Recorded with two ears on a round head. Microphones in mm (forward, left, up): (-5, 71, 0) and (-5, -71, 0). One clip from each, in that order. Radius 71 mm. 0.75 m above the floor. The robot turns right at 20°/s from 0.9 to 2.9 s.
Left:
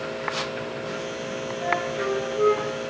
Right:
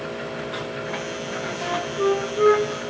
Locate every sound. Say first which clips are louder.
1.6 s a flute: right 2 dB; 45° right (ahead or behind), 0.6 m